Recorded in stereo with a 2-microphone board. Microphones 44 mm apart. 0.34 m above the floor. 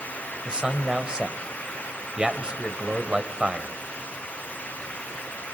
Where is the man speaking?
20° right (ahead or behind), 1.6 m.